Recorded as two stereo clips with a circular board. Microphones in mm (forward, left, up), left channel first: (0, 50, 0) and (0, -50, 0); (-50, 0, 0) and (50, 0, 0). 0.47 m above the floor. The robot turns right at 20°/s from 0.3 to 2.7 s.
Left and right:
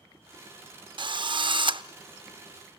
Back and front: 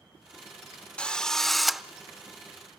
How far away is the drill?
About 0.5 m.